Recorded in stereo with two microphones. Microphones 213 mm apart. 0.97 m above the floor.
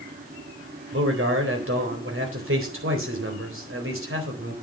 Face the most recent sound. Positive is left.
turn(degrees=-65)  # may be behind; listen again after turning